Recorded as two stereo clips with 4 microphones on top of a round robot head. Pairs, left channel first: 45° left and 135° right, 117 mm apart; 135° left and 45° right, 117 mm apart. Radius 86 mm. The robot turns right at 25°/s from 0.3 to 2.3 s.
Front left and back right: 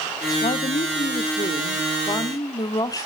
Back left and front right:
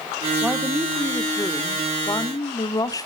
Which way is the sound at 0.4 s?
40° left.